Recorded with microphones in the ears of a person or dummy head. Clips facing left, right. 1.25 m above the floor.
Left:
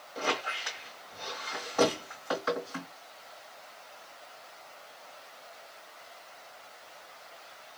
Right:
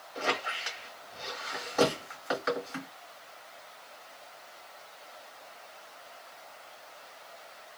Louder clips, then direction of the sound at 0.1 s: Even; 30° right (ahead or behind).